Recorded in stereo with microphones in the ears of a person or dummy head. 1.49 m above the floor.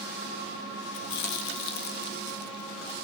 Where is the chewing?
65° left (ahead or behind), 1.2 m.